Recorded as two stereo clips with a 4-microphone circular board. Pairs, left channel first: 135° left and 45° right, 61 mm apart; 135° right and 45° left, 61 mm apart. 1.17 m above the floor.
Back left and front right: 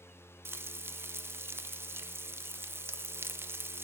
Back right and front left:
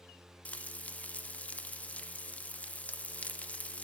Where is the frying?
75° right, 0.6 m.